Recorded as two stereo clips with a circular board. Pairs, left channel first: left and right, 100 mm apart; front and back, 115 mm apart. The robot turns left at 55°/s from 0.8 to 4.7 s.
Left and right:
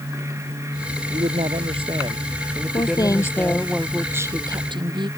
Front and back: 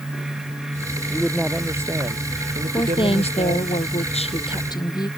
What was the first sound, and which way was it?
A man speaking, 75° right.